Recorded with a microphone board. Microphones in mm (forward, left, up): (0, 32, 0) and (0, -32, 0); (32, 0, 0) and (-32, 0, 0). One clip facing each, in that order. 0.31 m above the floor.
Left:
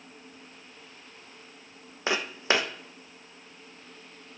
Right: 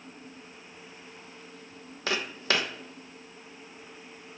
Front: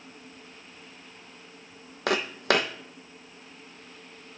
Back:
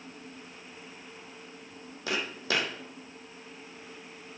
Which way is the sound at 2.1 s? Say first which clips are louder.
Left 2 dB, front 7 dB; 25° left.